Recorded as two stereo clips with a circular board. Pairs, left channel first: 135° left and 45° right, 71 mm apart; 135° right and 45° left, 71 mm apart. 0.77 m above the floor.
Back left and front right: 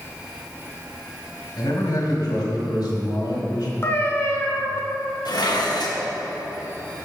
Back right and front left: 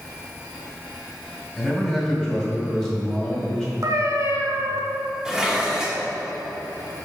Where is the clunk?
No clunk in this recording.